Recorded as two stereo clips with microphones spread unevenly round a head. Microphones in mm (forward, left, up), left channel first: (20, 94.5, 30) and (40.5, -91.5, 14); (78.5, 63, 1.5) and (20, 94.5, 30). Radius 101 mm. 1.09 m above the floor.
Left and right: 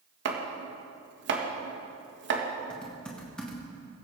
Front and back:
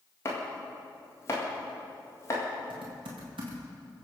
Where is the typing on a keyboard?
175° right, 1.8 m.